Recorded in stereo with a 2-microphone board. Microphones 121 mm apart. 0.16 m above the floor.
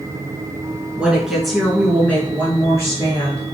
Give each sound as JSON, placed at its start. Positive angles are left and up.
{"t": 1.0, "sound": "a woman speaking", "side_deg": -10, "distance_m": 1.9}